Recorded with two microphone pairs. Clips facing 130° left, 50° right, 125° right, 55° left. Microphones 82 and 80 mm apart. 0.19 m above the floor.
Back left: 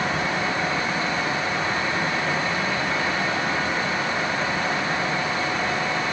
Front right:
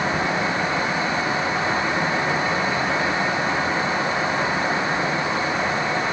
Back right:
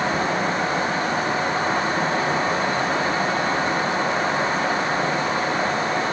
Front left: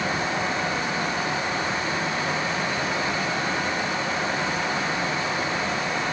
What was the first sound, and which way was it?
Only background noise.